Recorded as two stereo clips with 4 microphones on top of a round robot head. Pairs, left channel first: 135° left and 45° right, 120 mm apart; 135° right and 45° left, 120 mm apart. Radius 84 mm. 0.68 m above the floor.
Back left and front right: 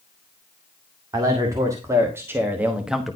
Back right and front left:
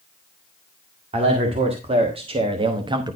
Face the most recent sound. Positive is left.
turn(degrees=50)